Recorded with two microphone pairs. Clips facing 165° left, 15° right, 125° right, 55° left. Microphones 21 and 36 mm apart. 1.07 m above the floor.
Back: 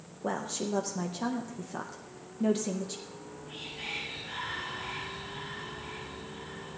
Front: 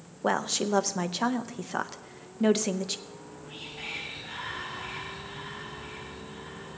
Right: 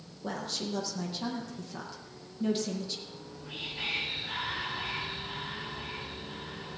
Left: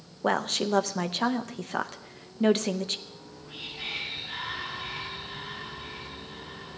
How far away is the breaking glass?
No breaking glass in this recording.